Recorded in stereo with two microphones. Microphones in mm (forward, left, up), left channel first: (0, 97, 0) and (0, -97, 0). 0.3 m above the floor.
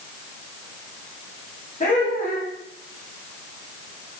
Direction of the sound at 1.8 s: 45° left (ahead or behind).